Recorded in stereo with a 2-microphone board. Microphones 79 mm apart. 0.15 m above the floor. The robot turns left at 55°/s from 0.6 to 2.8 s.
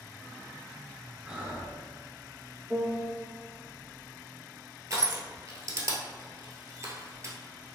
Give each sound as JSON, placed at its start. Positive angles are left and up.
{"t": 1.2, "sound": "breathing", "side_deg": -15, "distance_m": 1.2}
{"t": 2.7, "sound": "a piano", "side_deg": 15, "distance_m": 1.1}
{"t": 4.9, "sound": "crushing", "side_deg": -45, "distance_m": 0.9}